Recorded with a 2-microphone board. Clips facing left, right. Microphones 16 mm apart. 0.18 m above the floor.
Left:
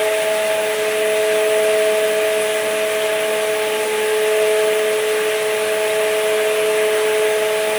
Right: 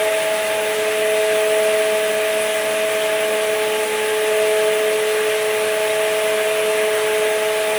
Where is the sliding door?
I don't hear a sliding door.